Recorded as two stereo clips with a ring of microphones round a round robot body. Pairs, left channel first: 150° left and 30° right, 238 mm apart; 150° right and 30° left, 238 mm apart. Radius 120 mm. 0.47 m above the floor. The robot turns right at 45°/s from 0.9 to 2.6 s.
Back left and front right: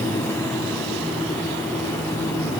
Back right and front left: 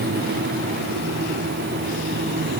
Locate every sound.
Only background noise.